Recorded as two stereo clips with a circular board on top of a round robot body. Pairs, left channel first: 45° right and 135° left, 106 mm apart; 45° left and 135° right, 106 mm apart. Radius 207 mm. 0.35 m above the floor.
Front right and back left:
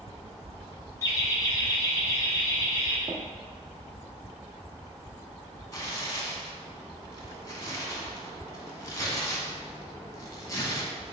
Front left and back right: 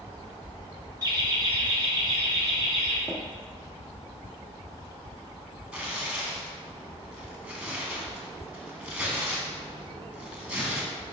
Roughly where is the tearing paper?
Right.